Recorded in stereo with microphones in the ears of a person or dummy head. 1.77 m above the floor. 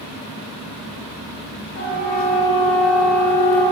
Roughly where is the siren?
Left.